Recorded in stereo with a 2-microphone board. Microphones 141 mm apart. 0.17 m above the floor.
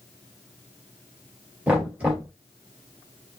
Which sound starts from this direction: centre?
Knocking, at 1.7 s.